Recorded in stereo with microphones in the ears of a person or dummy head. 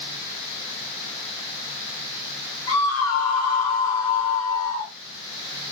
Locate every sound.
2.7 s a scream: 80° left, 3 m